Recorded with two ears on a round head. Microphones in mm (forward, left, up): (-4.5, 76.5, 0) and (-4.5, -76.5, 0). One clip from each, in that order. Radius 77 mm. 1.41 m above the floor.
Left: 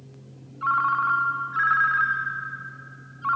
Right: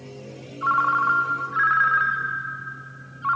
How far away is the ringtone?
About 0.5 m.